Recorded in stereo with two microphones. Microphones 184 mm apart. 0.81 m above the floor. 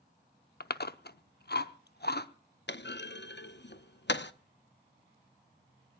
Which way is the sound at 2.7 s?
70° left (ahead or behind).